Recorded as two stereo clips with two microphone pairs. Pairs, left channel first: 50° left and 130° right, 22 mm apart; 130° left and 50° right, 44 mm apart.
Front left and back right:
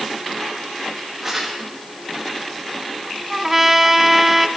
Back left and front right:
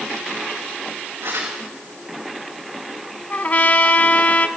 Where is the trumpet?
155° left, 0.8 m.